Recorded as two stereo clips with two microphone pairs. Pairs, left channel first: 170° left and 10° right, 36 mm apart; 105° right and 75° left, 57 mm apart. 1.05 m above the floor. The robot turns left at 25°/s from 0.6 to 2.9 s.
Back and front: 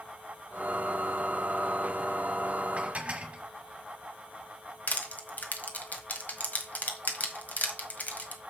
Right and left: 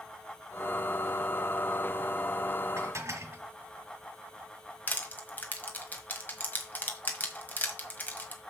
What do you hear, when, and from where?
2.8 s dishes clattering: 50° left, 1.6 m; by 3.4 s 45° left, 1.6 m
4.9 s crushing: 160° right, 1.5 m